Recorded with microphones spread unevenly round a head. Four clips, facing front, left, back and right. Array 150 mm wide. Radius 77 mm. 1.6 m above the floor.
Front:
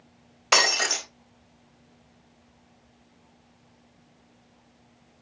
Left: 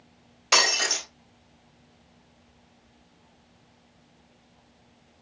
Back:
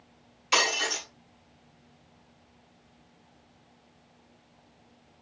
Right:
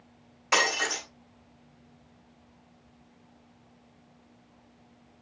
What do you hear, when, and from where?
0.5 s breaking glass: 10° left, 3.5 m